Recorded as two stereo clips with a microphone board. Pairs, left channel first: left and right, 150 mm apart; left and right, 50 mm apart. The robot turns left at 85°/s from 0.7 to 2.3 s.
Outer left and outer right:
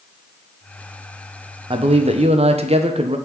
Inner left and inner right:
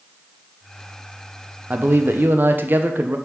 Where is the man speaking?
55° right, 0.7 m; by 3.2 s 105° right, 0.7 m.